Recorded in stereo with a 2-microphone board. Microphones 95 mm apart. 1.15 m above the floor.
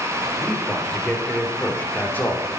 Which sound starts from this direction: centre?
A man speaking, at 0.4 s.